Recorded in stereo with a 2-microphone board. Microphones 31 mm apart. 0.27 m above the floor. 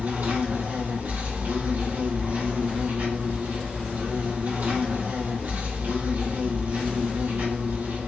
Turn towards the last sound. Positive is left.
turn(degrees=-75)  # may be behind; listen again after turning